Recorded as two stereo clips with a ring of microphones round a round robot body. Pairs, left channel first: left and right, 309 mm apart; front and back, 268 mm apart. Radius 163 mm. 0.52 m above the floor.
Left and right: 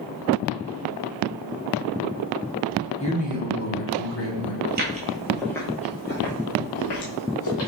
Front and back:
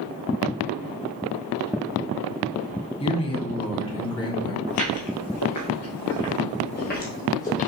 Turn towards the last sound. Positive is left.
turn(degrees=65)